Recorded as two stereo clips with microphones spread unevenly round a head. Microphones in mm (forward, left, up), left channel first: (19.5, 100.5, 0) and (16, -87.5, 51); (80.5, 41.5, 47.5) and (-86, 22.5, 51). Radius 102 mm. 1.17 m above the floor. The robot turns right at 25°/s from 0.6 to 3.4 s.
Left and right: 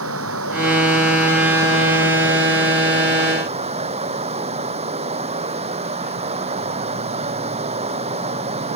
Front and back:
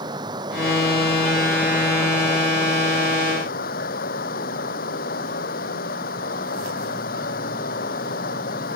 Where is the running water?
105° right; by 8.8 s 35° right.